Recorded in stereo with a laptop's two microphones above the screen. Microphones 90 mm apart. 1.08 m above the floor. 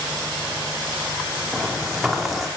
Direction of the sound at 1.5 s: Centre (ahead or behind).